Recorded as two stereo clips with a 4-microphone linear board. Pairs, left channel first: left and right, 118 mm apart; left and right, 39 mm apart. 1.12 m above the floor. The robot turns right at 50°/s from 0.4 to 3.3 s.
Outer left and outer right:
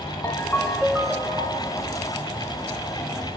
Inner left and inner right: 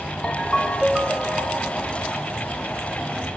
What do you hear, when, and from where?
0.2 s a ringtone: 160° left, 1.4 m; by 1.9 s 125° right, 1.4 m